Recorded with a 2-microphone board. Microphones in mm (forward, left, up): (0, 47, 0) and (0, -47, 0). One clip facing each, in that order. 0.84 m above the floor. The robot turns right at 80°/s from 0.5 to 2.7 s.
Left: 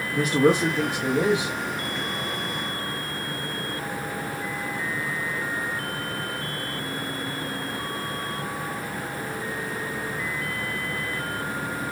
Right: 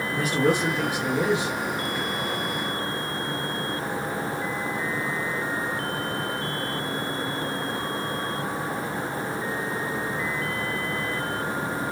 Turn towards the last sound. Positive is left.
turn(degrees=-90)